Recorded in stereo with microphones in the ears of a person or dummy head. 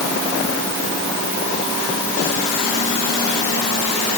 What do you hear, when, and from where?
Only background noise.